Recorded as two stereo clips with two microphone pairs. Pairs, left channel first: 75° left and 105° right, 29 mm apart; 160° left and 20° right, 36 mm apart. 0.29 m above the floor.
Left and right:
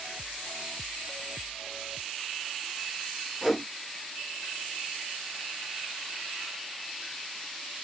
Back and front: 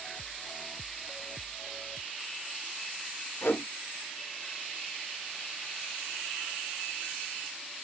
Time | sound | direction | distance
3.4 | a whoosh | 165° left | 0.9 m